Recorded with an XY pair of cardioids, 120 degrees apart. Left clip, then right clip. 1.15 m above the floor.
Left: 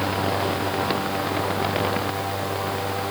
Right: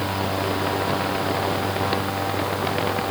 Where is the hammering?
I don't hear hammering.